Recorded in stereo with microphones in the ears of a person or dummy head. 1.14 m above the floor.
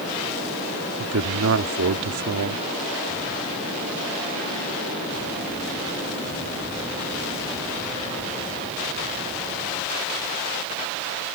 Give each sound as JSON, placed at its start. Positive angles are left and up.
{"t": 1.0, "sound": "a man speaking", "side_deg": -65}